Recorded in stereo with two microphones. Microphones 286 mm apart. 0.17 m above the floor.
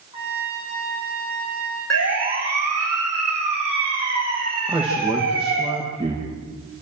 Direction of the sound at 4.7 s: 5° right (ahead or behind).